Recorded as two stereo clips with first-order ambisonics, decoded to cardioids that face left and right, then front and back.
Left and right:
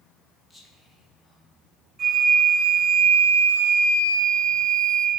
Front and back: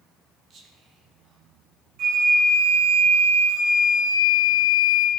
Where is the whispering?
165° right, 1.3 m.